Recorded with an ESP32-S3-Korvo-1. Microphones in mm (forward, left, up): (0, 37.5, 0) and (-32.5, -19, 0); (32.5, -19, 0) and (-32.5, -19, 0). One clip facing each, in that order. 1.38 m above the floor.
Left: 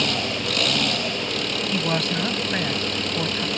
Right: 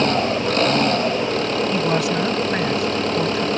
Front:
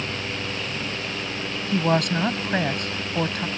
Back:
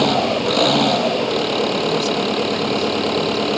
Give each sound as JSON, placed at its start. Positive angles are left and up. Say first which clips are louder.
{"t": 0.0, "sound": "an engine running", "louder": "right 7 dB, back 13 dB", "azimuth_deg": -175}
{"t": 1.7, "sound": "a woman speaking", "louder": "right 2 dB, back 3 dB", "azimuth_deg": -40}